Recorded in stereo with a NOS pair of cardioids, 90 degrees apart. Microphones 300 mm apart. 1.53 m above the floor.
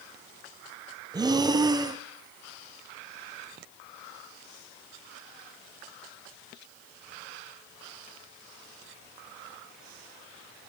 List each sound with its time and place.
1.1 s breathing: 15° right, 0.7 m